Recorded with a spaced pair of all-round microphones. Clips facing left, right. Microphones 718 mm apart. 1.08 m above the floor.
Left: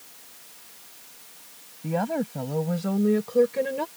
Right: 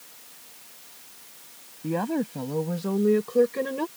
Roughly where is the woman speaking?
Centre.